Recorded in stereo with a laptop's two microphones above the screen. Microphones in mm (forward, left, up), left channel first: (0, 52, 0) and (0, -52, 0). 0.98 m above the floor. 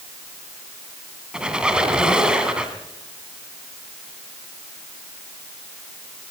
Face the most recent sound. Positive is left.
turn(degrees=-10)  # may be behind; listen again after turning